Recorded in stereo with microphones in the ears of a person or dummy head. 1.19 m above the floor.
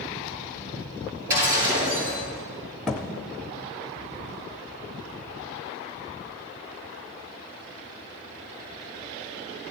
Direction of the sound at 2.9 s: 5° left (ahead or behind).